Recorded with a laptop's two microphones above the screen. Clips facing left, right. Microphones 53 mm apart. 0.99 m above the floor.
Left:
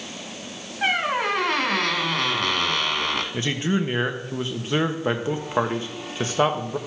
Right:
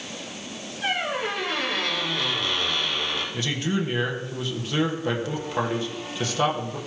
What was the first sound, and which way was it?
A squeak, 60° left (ahead or behind).